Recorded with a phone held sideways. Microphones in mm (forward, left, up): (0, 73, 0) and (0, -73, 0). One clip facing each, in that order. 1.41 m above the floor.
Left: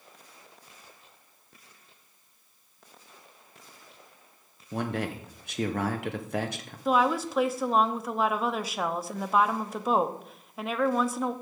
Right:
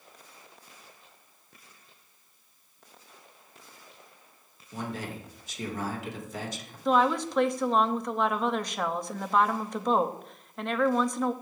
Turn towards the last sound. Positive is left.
turn(degrees=5)  # may be behind; listen again after turning